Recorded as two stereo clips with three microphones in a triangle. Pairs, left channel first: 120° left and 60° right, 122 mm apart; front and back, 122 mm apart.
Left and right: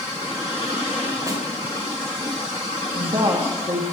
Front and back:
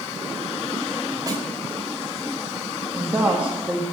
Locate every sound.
1.3 s a snare drum: 120° right, 3.5 m
2.9 s a woman speaking: 100° right, 1.7 m